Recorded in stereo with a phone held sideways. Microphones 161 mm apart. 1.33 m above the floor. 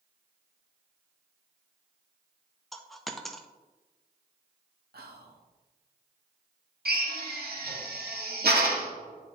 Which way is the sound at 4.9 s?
80° right.